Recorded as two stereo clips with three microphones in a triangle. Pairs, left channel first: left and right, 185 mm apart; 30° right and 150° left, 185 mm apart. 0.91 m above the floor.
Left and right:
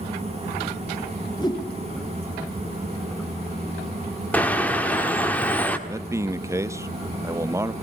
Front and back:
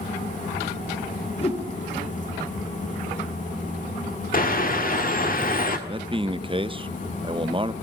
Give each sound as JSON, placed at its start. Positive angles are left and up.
{"t": 1.4, "sound": "a whoosh", "azimuth_deg": 25, "distance_m": 3.0}
{"t": 4.3, "sound": "a bird", "azimuth_deg": 10, "distance_m": 1.7}
{"t": 5.9, "sound": "a man speaking", "azimuth_deg": -160, "distance_m": 0.6}